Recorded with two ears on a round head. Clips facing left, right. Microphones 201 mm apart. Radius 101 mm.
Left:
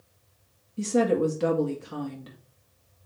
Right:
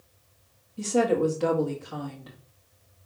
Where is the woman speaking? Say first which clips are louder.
Even; 30° left (ahead or behind), 1.9 m.